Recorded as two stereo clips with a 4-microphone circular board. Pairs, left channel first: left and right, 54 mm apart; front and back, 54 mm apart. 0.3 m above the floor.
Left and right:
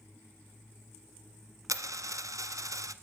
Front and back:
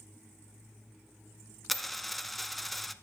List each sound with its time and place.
1.7 s a dropped coin: 90° right, 0.5 m